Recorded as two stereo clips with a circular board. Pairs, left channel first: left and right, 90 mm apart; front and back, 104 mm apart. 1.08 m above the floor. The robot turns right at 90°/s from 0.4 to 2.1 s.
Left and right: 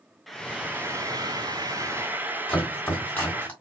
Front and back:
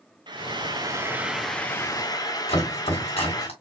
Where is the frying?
Straight behind, 0.7 m; by 3.5 s 30° right, 0.7 m.